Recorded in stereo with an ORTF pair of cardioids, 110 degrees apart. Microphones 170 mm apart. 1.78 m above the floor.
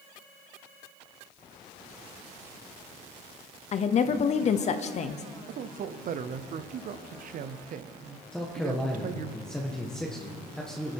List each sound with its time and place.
3.7 s a woman speaking: 45° left, 0.9 m
5.5 s a man speaking: 50° right, 0.9 m
8.3 s a man speaking: 5° left, 1.5 m